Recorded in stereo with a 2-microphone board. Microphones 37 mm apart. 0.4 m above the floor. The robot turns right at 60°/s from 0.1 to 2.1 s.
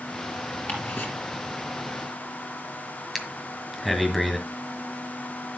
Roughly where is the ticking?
Left.